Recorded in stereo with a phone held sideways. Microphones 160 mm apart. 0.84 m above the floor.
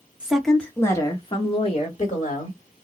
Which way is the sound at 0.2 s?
5° right (ahead or behind).